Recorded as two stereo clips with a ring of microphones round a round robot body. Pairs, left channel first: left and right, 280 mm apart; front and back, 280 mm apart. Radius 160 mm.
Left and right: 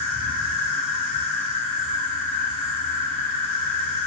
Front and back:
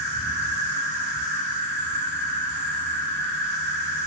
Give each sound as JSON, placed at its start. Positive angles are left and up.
{"t": 0.0, "sound": "an insect", "azimuth_deg": -175, "distance_m": 1.0}